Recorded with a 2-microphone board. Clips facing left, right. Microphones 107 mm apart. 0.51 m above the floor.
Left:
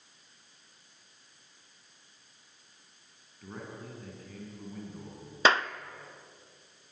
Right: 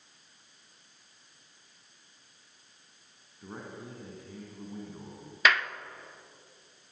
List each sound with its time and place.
3.4 s a man speaking: 15° right (ahead or behind), 4.5 m
5.5 s a clap: 30° left (ahead or behind), 0.6 m